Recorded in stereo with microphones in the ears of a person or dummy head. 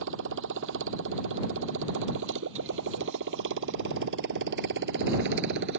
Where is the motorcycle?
70° right (ahead or behind); by 5.8 s 60° right (ahead or behind).